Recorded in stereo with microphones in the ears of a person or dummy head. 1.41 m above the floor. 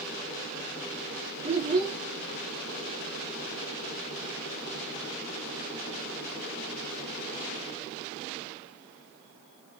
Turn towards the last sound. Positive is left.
turn(degrees=-35)  # may be behind; listen again after turning